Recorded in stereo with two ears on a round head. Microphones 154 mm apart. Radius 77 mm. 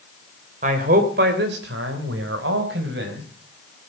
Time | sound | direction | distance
0.6 | a man speaking | 50° right (ahead or behind) | 3.5 m